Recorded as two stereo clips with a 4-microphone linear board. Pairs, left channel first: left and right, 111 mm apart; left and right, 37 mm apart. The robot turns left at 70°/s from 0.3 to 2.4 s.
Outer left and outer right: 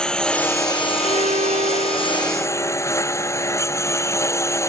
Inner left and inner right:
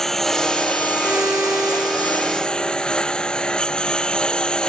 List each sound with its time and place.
0.0 s a lawn mower: 175° left; by 4.7 s 25° left
1.0 s a violin: 60° right; by 3.0 s 155° right